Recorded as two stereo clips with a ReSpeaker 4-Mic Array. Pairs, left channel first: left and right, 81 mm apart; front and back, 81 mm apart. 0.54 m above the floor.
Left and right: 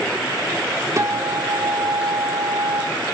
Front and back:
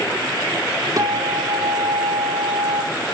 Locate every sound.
1.0 s a guitar: 140° right, 1.2 m